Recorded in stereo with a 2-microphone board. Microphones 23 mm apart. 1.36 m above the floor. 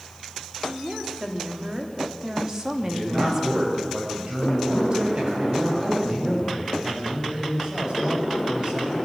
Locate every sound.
0.6 s a woman speaking: 35° right (ahead or behind), 4 m; by 3.8 s 10° right (ahead or behind), 2.5 m
2.8 s a man speaking: 35° right (ahead or behind), 7.5 m
4.7 s a man speaking: 45° right (ahead or behind), 9 m